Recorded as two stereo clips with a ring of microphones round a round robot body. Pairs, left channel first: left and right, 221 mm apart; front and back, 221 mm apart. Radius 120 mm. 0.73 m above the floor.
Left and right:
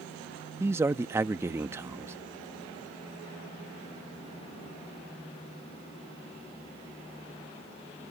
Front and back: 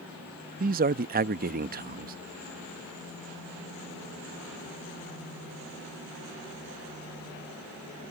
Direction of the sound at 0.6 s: 165° right.